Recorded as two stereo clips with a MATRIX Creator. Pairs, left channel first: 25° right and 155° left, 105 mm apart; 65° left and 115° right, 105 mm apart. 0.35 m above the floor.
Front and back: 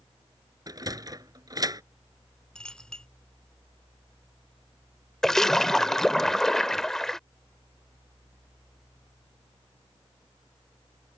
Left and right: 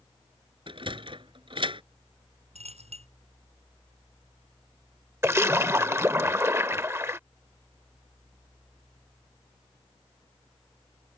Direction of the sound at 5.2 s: 100° right.